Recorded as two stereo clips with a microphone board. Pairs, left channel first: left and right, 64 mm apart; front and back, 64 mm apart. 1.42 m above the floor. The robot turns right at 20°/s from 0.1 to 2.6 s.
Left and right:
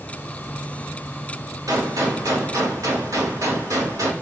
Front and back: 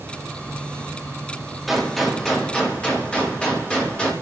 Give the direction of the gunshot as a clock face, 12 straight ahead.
3 o'clock.